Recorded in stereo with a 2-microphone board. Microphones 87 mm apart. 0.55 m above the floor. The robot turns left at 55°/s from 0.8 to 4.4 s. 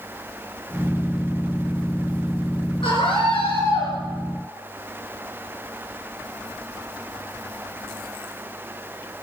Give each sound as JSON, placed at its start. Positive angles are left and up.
{"t": 2.8, "sound": "a scream", "azimuth_deg": 110, "distance_m": 10.0}